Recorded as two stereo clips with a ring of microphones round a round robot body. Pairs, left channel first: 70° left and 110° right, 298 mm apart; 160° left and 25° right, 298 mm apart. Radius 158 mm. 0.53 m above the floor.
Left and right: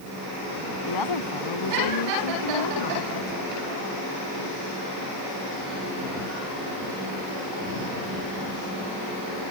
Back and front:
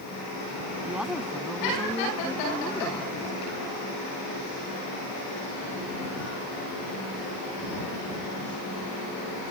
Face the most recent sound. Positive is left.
turn(degrees=75)